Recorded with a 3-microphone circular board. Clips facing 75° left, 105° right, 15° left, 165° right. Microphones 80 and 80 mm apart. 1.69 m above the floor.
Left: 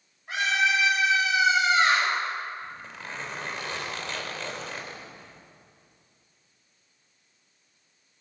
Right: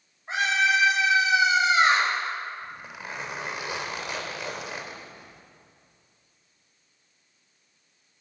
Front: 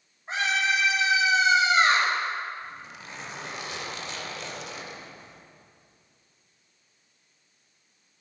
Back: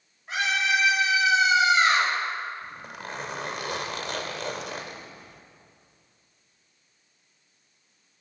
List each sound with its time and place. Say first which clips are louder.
0.3 s a scream: right 2 dB, even; 45° right, 9 m; by 2.1 s 35° right, 8.5 m
2.6 s a zipper: right 1 dB, back 3 dB; straight behind, 2.5 m